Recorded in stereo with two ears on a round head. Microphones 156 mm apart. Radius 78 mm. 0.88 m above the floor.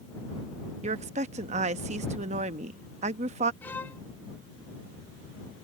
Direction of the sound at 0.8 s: 40° right (ahead or behind).